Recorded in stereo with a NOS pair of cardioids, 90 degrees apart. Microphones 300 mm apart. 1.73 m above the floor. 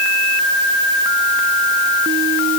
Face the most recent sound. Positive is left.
No sound to turn to.